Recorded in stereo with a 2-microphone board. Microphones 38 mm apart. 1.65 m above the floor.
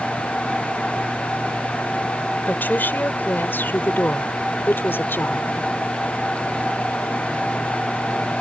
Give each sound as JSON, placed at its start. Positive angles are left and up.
{"t": 2.5, "sound": "a woman speaking", "side_deg": 60}